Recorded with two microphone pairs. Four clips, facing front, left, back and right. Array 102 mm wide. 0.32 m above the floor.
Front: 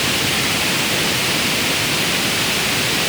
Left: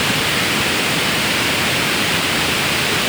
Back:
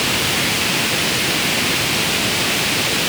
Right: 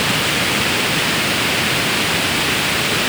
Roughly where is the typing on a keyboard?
I don't hear typing on a keyboard.